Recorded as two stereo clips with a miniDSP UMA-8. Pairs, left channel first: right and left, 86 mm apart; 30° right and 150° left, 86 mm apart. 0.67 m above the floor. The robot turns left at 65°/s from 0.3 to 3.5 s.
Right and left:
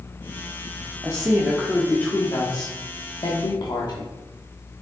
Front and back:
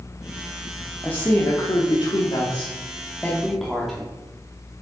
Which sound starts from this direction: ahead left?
A woman speaking, at 1.0 s.